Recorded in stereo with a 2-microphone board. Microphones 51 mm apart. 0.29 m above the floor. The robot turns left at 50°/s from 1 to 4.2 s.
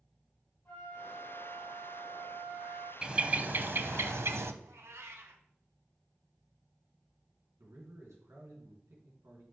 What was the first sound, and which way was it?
A flute, 40° left.